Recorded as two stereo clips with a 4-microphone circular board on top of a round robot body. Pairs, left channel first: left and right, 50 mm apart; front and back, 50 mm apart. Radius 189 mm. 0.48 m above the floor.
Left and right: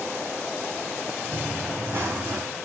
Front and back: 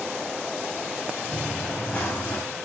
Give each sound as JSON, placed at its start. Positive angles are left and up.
{"t": 1.3, "sound": "running footsteps", "azimuth_deg": -55, "distance_m": 5.5}